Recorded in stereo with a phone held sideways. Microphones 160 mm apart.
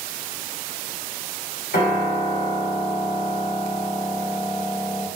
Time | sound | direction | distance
1.7 | a piano | 80° left | 1.4 m